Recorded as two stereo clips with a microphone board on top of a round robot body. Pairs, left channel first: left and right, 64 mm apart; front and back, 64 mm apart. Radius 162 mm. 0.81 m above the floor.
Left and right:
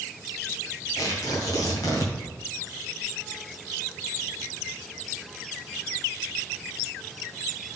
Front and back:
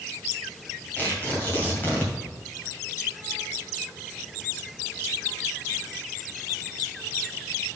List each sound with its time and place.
1.0 s tearing paper: 65° left, 2.5 m